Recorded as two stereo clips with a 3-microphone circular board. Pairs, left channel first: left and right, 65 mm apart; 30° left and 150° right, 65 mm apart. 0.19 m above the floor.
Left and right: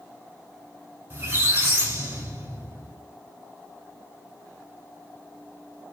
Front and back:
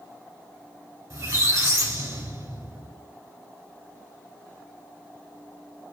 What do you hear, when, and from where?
1.1 s a squeak: 140° right, 1.2 m